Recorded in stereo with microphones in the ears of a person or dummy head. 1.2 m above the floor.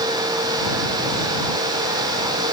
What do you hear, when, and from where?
Only background noise.